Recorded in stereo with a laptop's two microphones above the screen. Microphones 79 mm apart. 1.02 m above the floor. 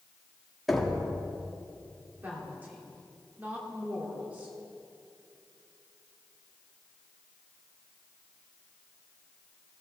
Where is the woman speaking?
25° right (ahead or behind), 2.5 m.